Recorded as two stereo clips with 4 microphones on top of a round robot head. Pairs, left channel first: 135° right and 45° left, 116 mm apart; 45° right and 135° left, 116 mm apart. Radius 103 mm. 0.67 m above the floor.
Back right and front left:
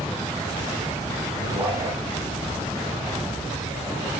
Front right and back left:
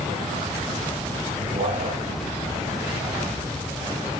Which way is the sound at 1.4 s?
110° left.